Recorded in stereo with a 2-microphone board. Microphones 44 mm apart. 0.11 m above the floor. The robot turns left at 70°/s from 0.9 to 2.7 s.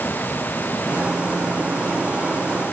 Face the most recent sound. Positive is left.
No sound to turn to.